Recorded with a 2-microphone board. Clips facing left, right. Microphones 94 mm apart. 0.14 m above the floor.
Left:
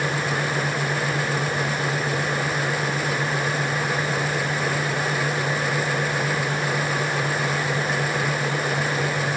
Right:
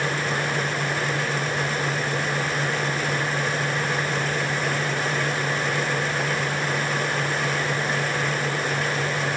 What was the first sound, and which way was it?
Only background noise.